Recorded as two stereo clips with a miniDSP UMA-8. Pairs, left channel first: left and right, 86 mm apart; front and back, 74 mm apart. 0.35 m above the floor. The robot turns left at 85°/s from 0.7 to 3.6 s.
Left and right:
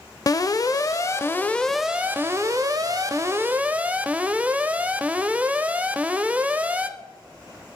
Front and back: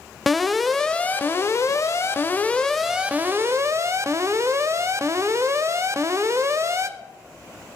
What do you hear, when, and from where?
0.3 s an alarm: 90° left, 0.6 m; by 6.9 s 155° right, 0.6 m